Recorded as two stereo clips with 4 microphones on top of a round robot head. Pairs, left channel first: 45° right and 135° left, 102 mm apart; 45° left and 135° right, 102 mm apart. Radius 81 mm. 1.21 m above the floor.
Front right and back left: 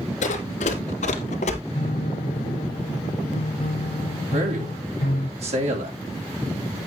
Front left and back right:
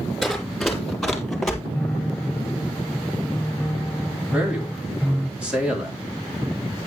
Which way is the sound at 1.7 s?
45° right.